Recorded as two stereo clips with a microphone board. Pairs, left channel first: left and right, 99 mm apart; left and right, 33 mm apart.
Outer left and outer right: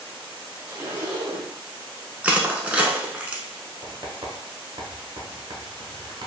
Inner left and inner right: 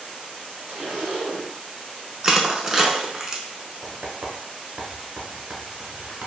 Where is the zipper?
20° right (ahead or behind), 1.1 m.